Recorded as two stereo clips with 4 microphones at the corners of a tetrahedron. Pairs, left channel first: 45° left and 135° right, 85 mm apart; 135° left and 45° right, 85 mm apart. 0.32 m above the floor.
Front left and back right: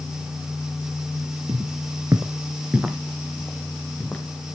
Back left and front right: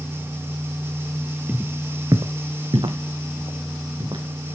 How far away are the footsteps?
About 1.2 m.